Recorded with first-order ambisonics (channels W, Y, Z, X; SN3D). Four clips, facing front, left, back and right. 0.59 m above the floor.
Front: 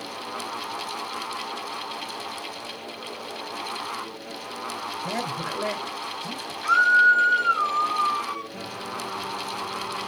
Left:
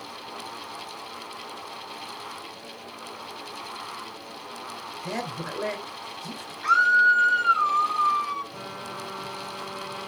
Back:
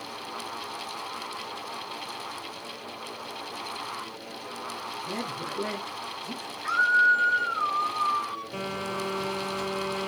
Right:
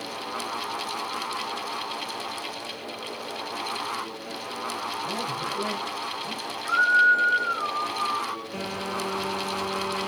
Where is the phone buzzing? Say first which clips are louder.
Right 6 dB, back 2 dB; 140° right, 2.5 m.